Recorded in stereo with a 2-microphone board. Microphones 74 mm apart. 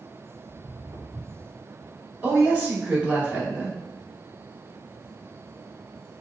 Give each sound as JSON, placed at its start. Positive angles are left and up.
{"t": 0.5, "sound": "footsteps", "side_deg": -60, "distance_m": 1.9}
{"t": 2.2, "sound": "a woman speaking", "side_deg": -20, "distance_m": 1.1}